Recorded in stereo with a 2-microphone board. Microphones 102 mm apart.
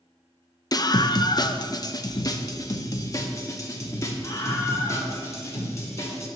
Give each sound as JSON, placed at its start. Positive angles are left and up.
{"t": 0.7, "sound": "a scream", "side_deg": 40, "distance_m": 0.5}